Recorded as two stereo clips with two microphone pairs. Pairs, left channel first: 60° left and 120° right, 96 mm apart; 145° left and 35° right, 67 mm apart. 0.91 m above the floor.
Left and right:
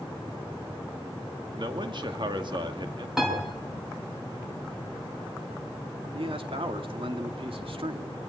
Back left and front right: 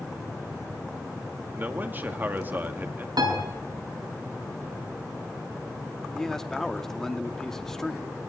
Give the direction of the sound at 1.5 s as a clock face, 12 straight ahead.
3 o'clock.